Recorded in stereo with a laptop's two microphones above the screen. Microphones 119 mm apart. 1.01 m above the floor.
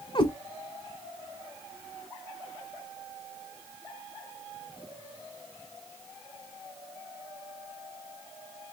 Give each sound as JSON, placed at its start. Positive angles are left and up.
{"t": 0.1, "sound": "a cat meowing", "side_deg": 45, "distance_m": 1.2}